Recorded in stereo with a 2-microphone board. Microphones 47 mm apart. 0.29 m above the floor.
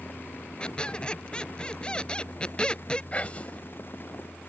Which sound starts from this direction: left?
Whispering, at 3.1 s.